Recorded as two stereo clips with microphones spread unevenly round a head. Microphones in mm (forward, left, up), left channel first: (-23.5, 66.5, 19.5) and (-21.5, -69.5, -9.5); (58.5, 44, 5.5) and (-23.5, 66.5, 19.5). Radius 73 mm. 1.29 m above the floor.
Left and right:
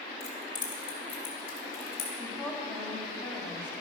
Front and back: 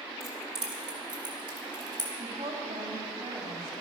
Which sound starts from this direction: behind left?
Keys jangling, at 0.2 s.